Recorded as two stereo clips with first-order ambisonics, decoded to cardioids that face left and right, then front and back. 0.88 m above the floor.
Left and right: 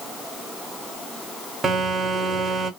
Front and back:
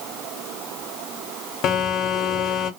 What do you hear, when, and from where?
1.6 s a phone buzzing: 20° right, 0.7 m